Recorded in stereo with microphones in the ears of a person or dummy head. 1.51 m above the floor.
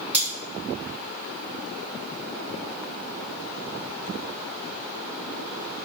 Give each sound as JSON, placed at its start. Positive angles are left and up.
{"t": 0.1, "sound": "cutlery clinking", "side_deg": -10, "distance_m": 1.6}